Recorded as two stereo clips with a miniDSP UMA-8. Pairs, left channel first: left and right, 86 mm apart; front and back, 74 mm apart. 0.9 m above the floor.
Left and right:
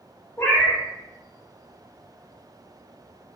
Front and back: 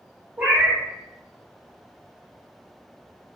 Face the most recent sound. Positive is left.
turn(degrees=130)